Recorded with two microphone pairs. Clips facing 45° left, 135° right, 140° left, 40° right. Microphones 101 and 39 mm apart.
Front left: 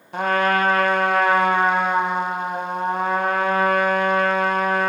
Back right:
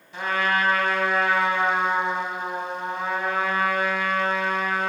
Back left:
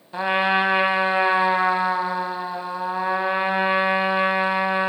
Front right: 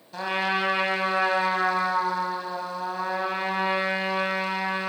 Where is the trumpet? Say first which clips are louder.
Front left 5 dB, back left 6 dB; 80° left, 0.9 m.